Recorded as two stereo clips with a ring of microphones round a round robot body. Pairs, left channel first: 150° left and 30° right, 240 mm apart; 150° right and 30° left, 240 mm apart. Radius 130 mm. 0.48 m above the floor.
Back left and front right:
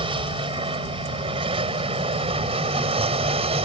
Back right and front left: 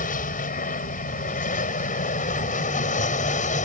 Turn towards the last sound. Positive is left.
turn(degrees=-95)